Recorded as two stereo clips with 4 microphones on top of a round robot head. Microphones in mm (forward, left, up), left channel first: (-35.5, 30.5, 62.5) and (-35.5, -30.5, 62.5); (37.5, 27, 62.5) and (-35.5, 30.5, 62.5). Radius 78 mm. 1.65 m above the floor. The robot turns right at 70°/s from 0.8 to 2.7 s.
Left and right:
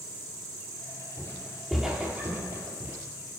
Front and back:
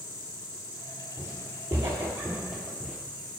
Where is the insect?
70° right, 3 m; by 3.4 s 65° left, 3 m.